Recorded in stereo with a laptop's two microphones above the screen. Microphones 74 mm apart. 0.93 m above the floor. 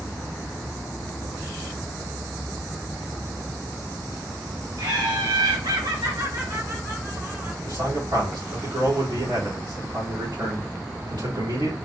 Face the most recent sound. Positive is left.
turn(degrees=-75)  # may be behind; listen again after turning